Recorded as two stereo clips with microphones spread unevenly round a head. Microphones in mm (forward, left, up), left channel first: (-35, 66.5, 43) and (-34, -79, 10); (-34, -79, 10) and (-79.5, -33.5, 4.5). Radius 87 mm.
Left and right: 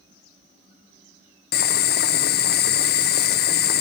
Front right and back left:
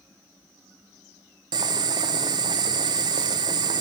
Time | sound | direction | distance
1.5 | boiling | 110° left | 0.7 m